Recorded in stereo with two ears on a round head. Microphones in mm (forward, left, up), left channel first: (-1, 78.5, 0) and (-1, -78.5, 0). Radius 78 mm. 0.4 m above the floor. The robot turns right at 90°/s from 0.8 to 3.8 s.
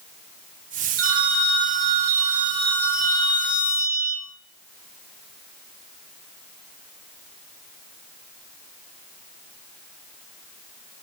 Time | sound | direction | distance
1.0 | a phone ringing | 120° right | 3.5 m